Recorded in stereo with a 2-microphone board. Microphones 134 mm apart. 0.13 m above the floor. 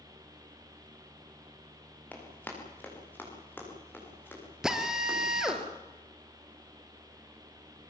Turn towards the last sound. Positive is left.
turn(degrees=-5)  # may be behind; listen again after turning